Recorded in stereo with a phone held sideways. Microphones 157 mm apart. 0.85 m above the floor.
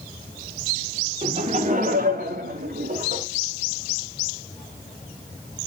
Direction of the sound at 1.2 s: 35° right (ahead or behind).